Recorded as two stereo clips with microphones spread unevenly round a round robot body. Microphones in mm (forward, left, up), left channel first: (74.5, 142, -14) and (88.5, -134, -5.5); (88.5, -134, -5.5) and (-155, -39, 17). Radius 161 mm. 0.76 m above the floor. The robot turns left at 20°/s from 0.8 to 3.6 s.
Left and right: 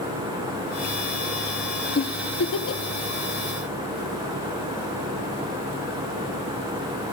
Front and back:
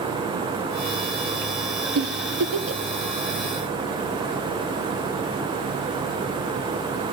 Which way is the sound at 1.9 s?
135° left.